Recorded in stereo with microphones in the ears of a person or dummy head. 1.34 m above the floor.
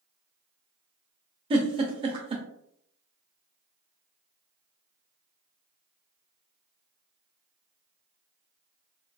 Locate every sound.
1.5 s a giggle: 30° right (ahead or behind), 0.5 m